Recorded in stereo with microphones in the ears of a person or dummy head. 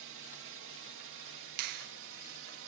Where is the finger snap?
55° right (ahead or behind).